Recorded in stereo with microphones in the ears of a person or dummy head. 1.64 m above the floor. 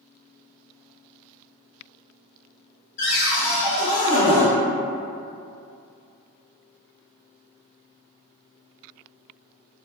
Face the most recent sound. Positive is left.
turn(degrees=45)  # may be behind; listen again after turning